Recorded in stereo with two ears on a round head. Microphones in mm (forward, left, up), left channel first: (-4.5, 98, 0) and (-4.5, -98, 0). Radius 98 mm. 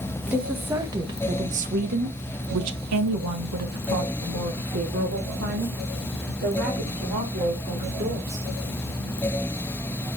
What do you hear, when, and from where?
0.3 s a woman speaking: 5° right (ahead or behind), 1.6 m; by 8.5 s 50° right (ahead or behind), 4.5 m